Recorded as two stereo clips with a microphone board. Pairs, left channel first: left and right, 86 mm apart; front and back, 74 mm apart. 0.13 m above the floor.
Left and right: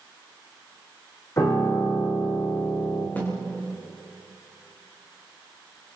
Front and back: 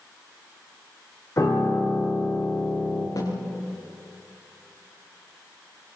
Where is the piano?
40° left, 6.5 m.